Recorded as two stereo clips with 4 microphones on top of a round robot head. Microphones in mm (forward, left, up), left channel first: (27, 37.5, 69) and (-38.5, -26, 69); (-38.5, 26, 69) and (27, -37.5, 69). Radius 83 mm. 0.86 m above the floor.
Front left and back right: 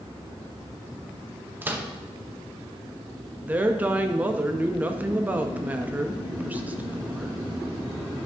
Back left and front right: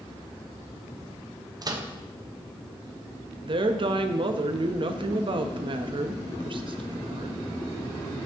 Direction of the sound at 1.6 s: 70° right.